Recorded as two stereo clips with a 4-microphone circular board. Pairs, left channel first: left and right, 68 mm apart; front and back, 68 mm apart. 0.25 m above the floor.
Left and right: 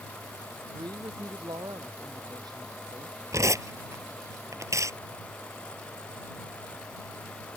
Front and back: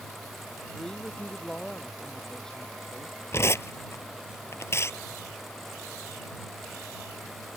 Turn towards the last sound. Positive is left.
turn(degrees=-45)